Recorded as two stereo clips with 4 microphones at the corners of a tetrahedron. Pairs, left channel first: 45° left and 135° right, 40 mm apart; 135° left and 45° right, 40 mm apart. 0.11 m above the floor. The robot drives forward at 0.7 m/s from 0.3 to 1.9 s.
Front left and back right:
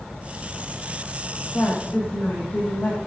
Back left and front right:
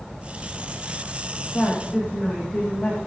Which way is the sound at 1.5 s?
70° left.